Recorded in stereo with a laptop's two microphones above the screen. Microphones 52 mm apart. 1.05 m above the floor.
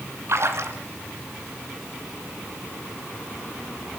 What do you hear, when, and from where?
0.3 s a splash: 55° right (ahead or behind), 2 m